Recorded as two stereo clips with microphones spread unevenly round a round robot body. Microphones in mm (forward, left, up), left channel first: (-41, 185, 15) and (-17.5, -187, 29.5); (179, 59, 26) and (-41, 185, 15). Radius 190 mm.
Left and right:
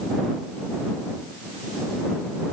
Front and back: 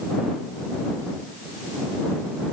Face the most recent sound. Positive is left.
No sound to turn to.